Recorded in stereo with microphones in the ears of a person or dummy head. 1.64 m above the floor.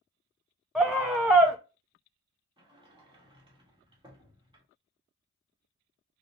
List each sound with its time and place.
0.8 s a scream: centre (ahead or behind), 0.6 m
2.6 s a sliding door: 20° right (ahead or behind), 1.5 m